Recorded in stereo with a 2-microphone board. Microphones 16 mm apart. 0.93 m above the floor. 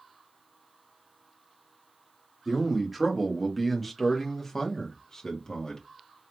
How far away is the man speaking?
About 1.6 m.